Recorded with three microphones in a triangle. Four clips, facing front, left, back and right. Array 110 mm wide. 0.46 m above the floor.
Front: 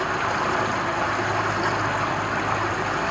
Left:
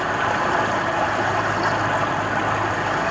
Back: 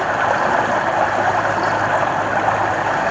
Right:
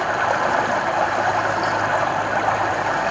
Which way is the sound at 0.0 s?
155° right.